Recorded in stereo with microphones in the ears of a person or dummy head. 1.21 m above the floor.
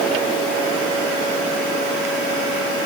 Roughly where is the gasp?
No gasp in this recording.